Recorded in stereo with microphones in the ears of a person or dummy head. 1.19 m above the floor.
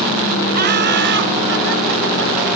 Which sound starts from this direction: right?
Laughter, at 0.5 s.